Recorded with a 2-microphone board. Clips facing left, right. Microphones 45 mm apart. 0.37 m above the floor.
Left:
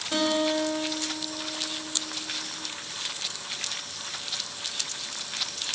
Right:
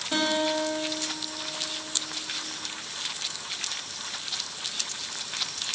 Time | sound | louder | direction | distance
0.1 | a guitar | left 1 dB | 5° right (ahead or behind) | 1.6 m